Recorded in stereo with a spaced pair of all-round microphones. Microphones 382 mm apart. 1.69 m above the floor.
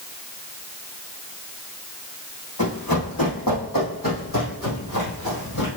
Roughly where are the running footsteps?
Left.